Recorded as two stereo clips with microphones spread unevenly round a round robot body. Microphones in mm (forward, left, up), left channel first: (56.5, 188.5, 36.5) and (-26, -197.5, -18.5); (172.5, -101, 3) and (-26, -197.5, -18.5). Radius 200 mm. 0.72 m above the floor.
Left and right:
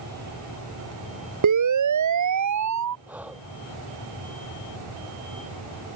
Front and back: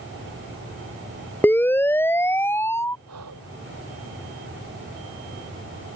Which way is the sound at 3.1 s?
170° left.